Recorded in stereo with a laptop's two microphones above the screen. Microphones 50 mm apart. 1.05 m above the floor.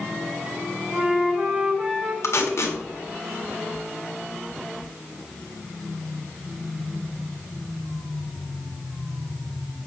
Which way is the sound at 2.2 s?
65° left (ahead or behind).